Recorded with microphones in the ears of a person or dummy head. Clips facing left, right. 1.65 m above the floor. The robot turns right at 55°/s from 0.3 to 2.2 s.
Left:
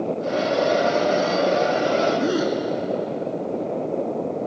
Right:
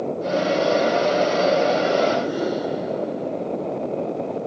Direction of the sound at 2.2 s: 65° left (ahead or behind).